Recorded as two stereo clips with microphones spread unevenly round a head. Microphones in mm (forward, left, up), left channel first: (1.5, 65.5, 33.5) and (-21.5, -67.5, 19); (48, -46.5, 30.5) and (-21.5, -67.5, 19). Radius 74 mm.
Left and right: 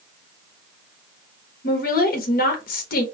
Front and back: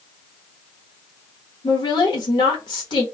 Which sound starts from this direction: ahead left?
A woman speaking, at 1.6 s.